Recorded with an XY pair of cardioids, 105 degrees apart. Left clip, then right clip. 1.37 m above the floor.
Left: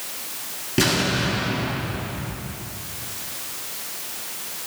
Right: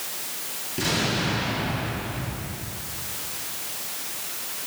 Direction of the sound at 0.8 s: 65° left.